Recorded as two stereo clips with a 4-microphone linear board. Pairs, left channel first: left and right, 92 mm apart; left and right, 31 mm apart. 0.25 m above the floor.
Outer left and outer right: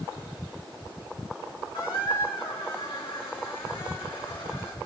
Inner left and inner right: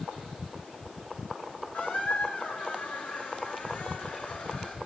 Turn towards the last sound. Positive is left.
turn(degrees=80)